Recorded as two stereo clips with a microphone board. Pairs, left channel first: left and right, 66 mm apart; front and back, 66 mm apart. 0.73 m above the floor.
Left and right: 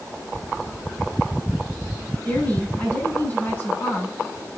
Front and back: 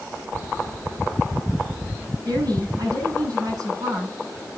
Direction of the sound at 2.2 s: 155° left.